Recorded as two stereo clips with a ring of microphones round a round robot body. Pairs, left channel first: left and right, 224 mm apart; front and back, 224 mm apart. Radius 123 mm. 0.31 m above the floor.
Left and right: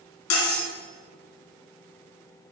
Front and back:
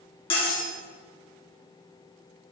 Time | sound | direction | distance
0.3 | cutlery clinking | 70° left | 2.5 m